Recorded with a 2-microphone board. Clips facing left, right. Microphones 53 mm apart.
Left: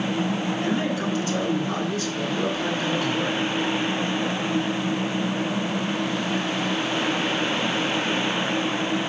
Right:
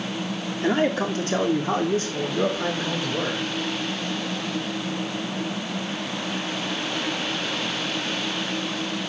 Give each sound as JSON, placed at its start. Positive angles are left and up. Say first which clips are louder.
{"t": 0.6, "sound": "a man speaking", "louder": "right 7 dB", "side_deg": -50, "distance_m": 1.7}